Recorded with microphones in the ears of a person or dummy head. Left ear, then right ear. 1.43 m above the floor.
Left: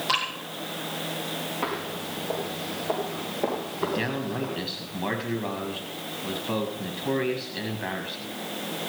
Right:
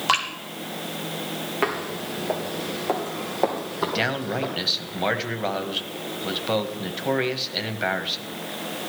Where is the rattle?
No rattle in this recording.